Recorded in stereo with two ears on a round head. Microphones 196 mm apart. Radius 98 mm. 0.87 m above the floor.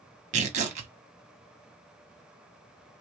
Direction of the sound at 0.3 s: 35° right (ahead or behind).